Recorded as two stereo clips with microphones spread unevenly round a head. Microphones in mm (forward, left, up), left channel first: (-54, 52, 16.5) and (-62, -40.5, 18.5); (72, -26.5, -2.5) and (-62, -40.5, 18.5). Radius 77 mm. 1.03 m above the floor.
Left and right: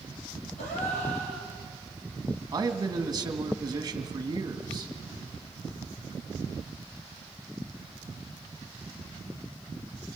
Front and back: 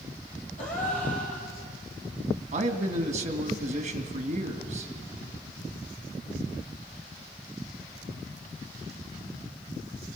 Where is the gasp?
55° left, 5 m.